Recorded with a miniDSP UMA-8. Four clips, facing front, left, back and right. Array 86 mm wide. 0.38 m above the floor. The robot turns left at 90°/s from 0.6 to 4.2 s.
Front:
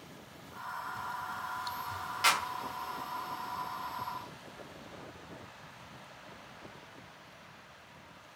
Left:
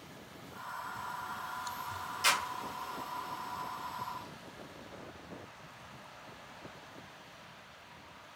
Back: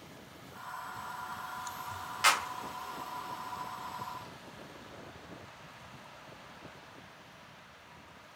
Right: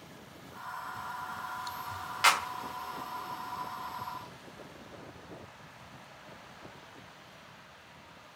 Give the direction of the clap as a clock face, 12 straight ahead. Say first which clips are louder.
Right 6 dB, back 1 dB; 3 o'clock.